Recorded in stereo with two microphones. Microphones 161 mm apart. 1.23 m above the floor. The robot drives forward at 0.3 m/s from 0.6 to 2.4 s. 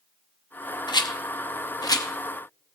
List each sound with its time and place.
0.9 s a rattle: 25° left (ahead or behind), 0.6 m